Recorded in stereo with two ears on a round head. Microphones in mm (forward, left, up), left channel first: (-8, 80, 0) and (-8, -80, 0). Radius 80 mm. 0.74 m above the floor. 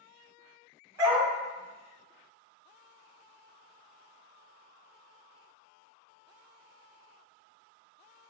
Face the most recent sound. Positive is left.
turn(degrees=-20)  # may be behind; listen again after turning